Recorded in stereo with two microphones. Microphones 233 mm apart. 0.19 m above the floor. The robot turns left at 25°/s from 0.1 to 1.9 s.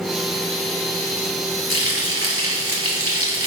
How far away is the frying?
About 2 m.